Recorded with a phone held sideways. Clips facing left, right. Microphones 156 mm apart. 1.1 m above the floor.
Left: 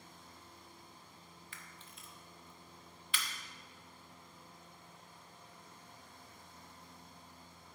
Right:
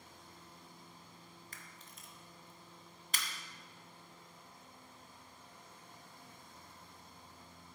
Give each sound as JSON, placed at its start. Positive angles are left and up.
{"t": 1.5, "sound": "a camera shutter", "side_deg": -40, "distance_m": 0.9}